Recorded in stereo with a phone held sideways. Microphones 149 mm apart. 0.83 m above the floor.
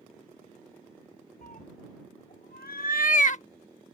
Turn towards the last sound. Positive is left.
turn(degrees=50)  # may be behind; listen again after turning